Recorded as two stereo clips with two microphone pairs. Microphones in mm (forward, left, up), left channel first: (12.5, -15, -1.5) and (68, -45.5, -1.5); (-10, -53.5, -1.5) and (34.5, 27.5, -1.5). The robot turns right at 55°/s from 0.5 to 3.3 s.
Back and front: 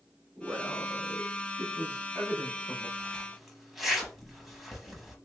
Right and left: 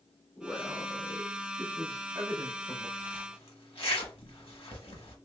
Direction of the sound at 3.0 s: 130° right.